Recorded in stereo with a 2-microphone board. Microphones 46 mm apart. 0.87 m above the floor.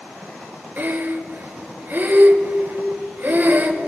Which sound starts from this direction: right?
Breathing, at 0.8 s.